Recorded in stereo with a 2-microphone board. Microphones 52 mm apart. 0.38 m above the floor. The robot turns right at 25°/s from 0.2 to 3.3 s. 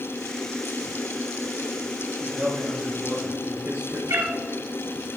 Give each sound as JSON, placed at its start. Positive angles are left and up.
{"t": 2.2, "sound": "a man speaking", "side_deg": -35, "distance_m": 5.0}
{"t": 4.1, "sound": "a cat meowing", "side_deg": -80, "distance_m": 1.8}